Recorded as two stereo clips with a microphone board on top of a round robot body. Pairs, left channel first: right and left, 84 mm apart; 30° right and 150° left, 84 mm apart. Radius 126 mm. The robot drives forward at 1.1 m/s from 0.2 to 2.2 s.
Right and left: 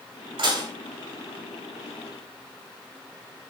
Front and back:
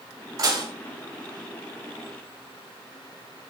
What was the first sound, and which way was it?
Dishes clattering, 105° left.